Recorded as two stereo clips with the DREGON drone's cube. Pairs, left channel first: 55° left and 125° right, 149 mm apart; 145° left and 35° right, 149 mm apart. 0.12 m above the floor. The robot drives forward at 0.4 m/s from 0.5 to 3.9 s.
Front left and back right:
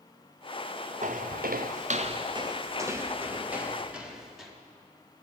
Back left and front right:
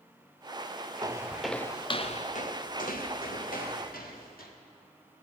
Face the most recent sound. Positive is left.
turn(degrees=145)